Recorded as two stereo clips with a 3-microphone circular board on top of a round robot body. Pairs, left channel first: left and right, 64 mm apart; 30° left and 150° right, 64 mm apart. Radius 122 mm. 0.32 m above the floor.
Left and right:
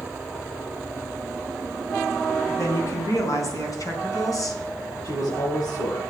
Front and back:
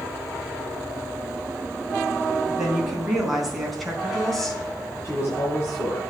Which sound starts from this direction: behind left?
A woman speaking, at 2.5 s.